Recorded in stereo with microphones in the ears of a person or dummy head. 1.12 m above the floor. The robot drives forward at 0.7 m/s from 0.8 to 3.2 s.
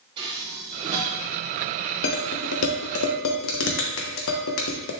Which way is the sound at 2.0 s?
60° left (ahead or behind).